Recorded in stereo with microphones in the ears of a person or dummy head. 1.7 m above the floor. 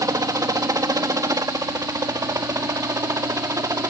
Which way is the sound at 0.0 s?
20° right (ahead or behind).